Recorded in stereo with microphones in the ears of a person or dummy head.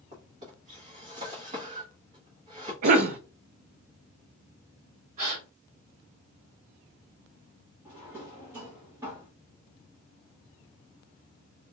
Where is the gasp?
40° right (ahead or behind), 1.8 m.